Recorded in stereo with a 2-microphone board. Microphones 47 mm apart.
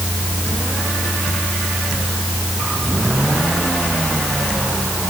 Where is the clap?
No clap in this recording.